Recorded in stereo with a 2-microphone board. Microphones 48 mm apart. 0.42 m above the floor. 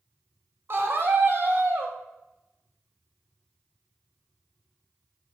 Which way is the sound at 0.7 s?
55° right (ahead or behind).